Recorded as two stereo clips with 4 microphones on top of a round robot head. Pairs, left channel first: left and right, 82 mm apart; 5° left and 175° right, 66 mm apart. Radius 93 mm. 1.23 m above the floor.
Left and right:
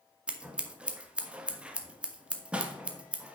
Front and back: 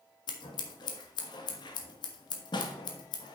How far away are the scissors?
About 1.2 m.